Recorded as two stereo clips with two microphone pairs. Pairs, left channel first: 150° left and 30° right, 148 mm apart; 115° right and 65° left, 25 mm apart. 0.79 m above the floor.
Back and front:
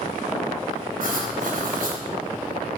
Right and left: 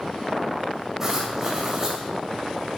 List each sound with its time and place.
1.0 s writing: 10° right, 3 m